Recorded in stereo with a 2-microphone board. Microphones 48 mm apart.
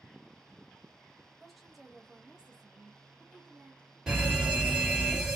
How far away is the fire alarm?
About 1.6 m.